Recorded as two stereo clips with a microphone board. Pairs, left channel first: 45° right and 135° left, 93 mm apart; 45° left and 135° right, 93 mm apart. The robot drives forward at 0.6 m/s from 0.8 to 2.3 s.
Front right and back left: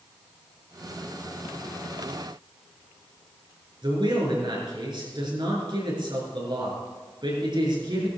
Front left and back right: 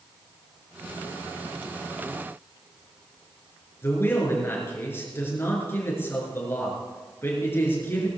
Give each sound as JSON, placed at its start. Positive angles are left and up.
{"t": 3.8, "sound": "a man speaking", "azimuth_deg": 110, "distance_m": 5.0}